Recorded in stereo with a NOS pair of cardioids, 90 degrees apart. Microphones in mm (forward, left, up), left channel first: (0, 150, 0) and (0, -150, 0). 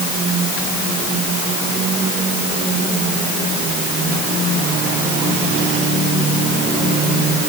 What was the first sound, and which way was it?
Only background noise.